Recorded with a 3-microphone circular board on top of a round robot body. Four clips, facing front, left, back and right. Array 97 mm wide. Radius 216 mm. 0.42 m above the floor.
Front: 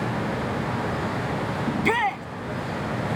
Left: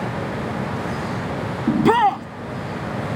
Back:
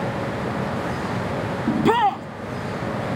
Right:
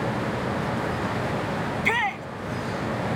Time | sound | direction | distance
1.7 | a shout | 115° left | ?